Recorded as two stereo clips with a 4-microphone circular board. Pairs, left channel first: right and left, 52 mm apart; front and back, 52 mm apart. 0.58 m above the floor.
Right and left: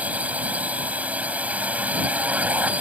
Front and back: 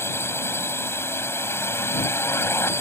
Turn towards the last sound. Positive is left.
turn(degrees=30)